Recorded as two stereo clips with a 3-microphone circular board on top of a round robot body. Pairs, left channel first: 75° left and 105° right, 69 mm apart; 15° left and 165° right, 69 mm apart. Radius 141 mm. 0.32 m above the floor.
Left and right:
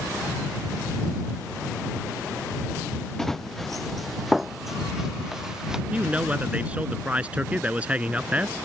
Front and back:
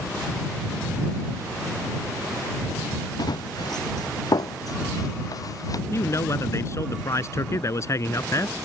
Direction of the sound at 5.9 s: 35° right.